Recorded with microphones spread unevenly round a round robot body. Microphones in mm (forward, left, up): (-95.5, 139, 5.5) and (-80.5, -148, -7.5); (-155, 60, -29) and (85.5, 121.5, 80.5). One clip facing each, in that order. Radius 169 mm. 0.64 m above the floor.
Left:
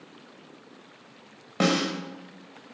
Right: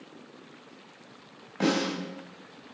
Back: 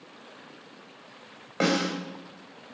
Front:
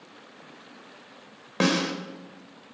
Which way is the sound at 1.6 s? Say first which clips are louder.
Left 1 dB, front 1 dB; 55° left.